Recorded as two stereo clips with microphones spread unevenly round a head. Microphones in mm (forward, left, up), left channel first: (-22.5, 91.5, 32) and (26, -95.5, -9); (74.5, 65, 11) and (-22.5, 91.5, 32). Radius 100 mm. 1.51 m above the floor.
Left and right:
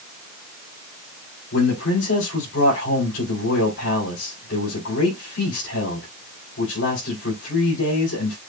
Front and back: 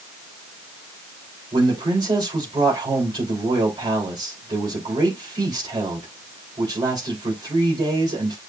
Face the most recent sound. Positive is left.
turn(degrees=120)